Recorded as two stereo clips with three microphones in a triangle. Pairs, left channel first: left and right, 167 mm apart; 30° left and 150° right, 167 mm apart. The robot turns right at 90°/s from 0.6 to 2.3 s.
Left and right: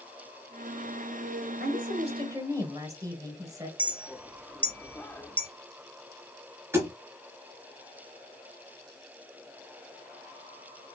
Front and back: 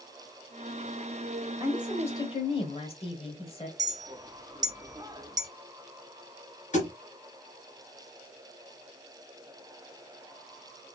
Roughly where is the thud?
Ahead.